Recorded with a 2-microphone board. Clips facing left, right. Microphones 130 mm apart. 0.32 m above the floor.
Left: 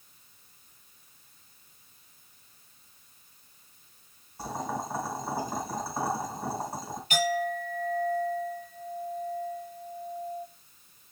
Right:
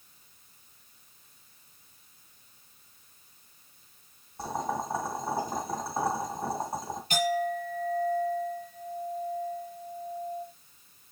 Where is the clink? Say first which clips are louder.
Even; 40° right (ahead or behind), 3.5 m.